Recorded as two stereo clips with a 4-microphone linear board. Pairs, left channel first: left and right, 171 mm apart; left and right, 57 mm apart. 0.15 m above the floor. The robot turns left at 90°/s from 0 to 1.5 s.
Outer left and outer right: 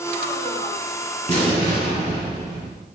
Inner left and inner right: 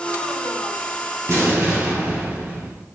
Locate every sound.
1.3 s an explosion: 45° right (ahead or behind), 2.5 m; by 2.9 s 25° right (ahead or behind), 2.5 m